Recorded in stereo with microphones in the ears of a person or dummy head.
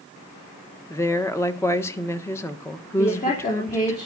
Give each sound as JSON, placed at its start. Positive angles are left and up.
{"t": 0.9, "sound": "a woman speaking", "side_deg": 10, "distance_m": 1.4}
{"t": 3.0, "sound": "a woman speaking", "side_deg": 35, "distance_m": 3.5}